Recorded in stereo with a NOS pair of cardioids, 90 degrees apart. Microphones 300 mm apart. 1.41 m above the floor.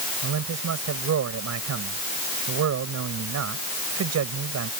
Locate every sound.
0.2 s a man speaking: 60° right